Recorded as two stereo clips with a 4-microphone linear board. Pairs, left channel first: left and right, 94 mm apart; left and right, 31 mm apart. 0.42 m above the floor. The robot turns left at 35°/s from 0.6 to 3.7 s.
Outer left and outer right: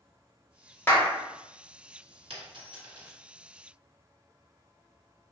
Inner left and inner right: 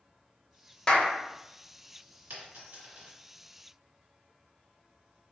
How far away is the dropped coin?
About 1.7 m.